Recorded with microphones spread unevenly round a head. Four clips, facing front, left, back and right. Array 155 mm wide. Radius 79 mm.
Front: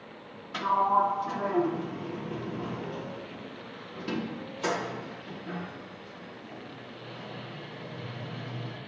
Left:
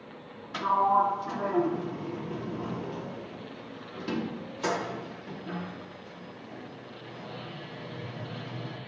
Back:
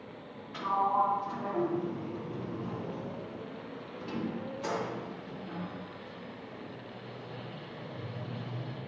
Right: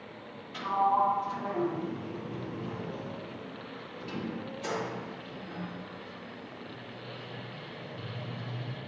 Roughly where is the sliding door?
Ahead left.